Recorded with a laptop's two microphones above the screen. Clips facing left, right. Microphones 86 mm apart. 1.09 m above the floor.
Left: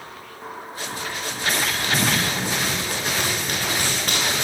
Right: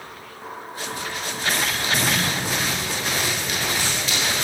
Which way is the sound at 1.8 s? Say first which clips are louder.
Left 1 dB; 50° left (ahead or behind).